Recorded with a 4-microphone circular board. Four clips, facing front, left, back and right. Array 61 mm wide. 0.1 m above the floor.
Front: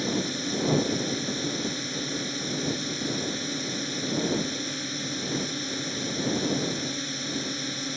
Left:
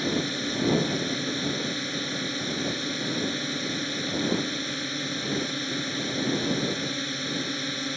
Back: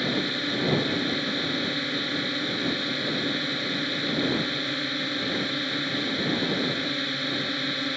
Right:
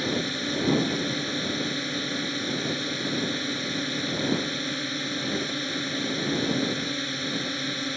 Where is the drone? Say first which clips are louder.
Even, back 2 dB; 170° right.